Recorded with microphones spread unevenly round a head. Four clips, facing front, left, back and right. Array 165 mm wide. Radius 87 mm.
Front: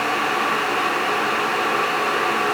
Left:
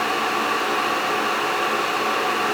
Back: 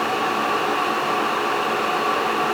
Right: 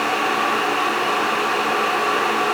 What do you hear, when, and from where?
Only background noise.